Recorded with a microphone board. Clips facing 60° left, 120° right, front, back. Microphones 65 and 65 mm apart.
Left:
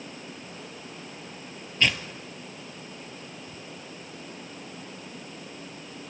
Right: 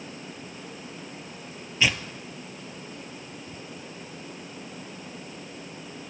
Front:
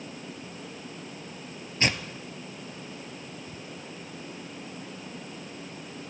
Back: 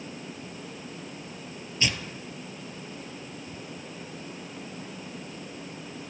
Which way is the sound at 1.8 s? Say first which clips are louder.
Even, front 2 dB; 40° right.